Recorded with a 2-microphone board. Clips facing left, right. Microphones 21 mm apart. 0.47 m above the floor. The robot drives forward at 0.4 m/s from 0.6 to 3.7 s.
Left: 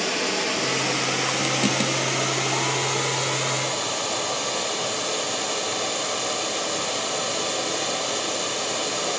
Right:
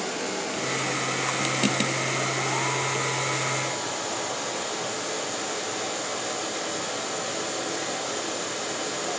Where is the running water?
60° left (ahead or behind), 2.5 m; by 9.2 s 40° left (ahead or behind), 3 m.